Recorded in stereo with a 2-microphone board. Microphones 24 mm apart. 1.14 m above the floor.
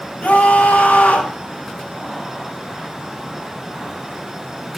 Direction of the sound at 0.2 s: 75° left (ahead or behind).